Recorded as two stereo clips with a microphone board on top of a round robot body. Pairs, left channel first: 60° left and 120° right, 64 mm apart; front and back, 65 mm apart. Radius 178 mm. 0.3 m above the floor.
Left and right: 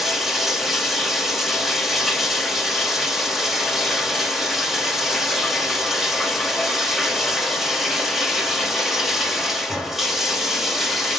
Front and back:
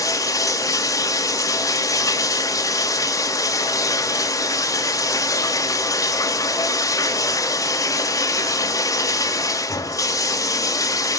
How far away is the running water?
About 1.9 m.